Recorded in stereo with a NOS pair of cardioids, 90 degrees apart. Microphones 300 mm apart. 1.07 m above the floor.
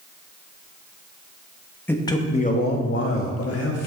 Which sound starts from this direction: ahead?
A man speaking, at 1.9 s.